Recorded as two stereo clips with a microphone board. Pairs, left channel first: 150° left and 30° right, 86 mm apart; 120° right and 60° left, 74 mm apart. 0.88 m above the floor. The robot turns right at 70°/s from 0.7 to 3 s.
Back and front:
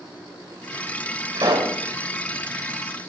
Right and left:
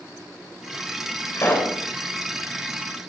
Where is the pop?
70° right, 3.5 m; by 1.8 s 45° right, 3.5 m.